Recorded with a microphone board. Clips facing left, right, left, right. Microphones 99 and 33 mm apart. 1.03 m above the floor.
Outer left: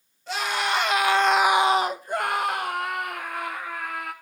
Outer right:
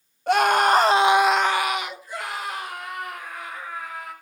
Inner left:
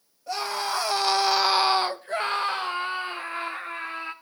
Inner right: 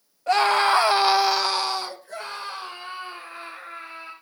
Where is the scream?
60° right (ahead or behind), 1.6 m; by 4.1 s 75° left (ahead or behind), 3.5 m.